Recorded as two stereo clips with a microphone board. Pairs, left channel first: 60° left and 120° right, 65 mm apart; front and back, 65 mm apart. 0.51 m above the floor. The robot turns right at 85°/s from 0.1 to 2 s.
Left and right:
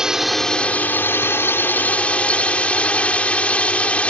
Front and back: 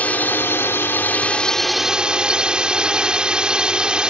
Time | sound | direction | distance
0.0 | a drone | 45° right | ?